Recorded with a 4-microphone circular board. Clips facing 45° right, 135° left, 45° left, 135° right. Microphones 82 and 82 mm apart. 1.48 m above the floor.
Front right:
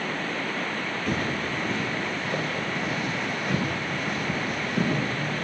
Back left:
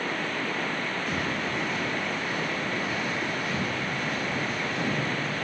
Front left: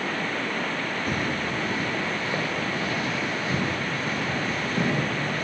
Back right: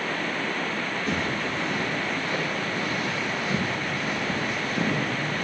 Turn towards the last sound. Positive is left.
turn(degrees=-10)